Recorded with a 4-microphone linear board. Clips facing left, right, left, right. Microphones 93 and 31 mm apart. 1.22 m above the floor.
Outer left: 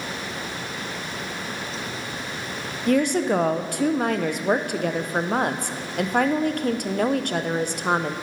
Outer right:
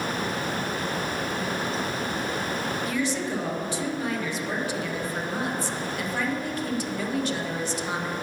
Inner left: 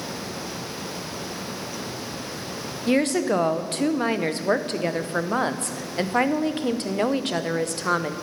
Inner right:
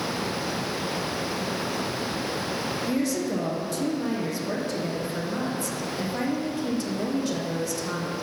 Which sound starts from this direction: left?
A woman speaking, at 2.9 s.